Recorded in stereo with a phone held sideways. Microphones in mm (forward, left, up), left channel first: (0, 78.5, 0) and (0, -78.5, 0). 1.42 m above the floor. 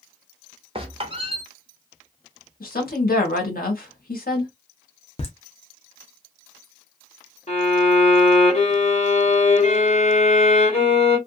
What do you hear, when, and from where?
0.8 s a squeak: 35° right (ahead or behind), 0.9 m
2.6 s a woman speaking: 75° left (ahead or behind), 1.4 m
5.2 s laughter: 40° left (ahead or behind), 0.6 m
7.5 s a violin: 45° left (ahead or behind), 1.4 m